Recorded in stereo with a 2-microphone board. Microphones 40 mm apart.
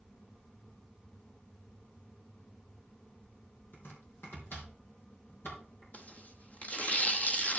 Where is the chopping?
70° left (ahead or behind), 3.5 m.